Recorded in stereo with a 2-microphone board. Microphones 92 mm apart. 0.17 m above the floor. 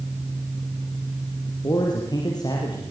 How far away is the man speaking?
About 6 m.